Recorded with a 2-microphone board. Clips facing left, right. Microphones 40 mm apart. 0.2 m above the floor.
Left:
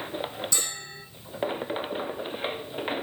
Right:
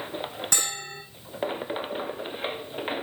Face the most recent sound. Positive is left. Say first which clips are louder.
# right 3 dB
turn(degrees=-60)  # may be behind; listen again after turning